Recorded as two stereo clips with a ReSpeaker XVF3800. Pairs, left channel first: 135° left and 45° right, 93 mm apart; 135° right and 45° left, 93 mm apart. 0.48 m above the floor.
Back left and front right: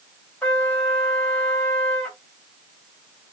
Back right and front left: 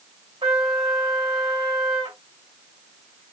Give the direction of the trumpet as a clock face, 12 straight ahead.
10 o'clock.